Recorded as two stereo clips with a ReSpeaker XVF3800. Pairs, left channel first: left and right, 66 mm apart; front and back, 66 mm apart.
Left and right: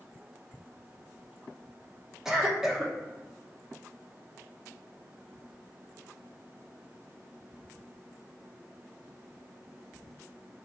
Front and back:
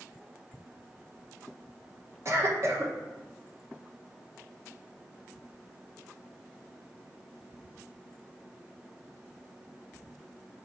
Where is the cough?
170° right, 0.8 m.